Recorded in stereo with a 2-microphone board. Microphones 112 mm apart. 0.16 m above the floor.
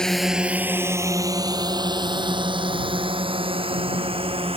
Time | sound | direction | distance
0.0 | a drone | 5° left (ahead or behind) | ?